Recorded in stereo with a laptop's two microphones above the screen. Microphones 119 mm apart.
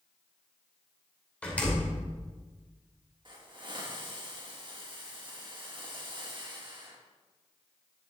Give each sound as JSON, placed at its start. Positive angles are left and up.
{"t": 1.4, "sound": "a door slam", "side_deg": 10, "distance_m": 2.5}
{"t": 3.2, "sound": "a hiss", "side_deg": -40, "distance_m": 1.8}